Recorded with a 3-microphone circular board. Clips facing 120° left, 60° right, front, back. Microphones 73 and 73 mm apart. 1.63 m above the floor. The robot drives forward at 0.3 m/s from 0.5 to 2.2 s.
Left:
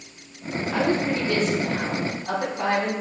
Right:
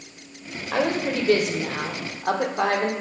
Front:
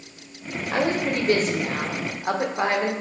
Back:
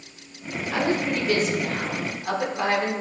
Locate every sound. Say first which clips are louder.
0.7 s a woman speaking: even, front 1 dB; 45° right, 1.5 m; by 2.9 s 60° right, 1.3 m